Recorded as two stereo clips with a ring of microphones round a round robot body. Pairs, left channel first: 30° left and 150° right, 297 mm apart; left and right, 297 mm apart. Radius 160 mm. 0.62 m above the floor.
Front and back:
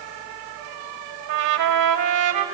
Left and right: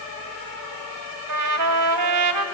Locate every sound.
1.3 s a trumpet: 125° right, 3 m